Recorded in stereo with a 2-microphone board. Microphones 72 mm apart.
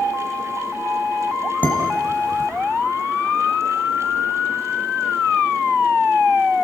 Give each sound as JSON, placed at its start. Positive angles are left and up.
{"t": 1.6, "sound": "dishes clattering", "side_deg": 25, "distance_m": 5.5}